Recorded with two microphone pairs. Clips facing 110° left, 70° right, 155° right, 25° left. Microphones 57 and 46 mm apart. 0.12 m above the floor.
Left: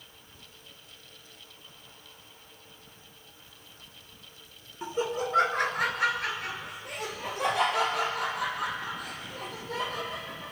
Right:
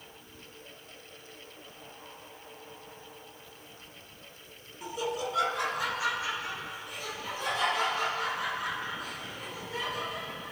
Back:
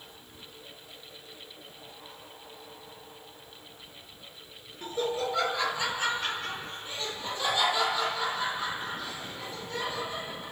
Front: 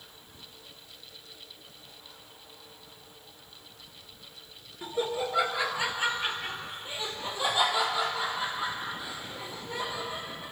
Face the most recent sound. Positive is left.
turn(degrees=100)